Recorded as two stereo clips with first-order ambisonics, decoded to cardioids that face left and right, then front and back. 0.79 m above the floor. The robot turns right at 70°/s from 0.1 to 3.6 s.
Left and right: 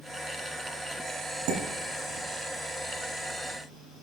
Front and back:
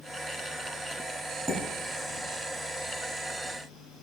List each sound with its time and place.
1.5 s dishes clattering: 105° right, 4 m; by 2.2 s 50° right, 4 m